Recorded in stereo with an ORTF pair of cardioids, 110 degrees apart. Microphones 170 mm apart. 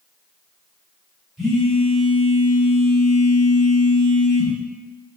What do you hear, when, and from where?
1.4 s a phone buzzing: straight ahead, 1.1 m